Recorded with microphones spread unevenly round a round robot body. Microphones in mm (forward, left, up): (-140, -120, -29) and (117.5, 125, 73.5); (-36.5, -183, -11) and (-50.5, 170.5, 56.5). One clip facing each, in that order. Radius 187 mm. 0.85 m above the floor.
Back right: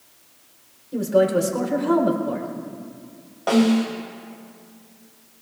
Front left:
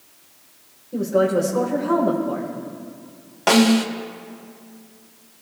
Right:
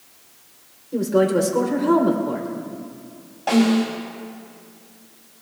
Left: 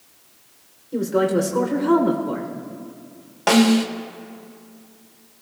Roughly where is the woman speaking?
Behind.